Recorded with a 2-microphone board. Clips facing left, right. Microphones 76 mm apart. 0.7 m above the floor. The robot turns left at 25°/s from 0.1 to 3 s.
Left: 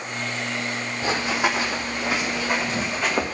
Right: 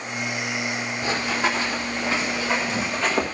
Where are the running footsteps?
20° left (ahead or behind), 1.8 m; by 3.2 s 10° left (ahead or behind), 2.5 m.